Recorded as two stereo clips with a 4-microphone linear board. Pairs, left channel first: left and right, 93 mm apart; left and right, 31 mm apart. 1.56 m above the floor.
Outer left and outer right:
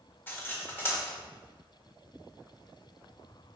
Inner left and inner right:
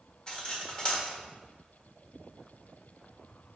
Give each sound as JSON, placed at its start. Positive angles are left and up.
{"t": 0.3, "sound": "cutlery clinking", "side_deg": 20, "distance_m": 1.4}